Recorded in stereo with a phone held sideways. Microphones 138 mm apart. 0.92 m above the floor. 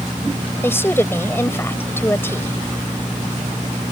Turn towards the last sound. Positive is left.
turn(degrees=15)  # may be behind; listen again after turning